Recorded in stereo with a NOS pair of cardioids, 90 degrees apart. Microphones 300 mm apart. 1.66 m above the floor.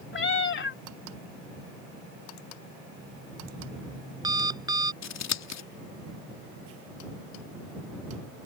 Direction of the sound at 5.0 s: 60° left.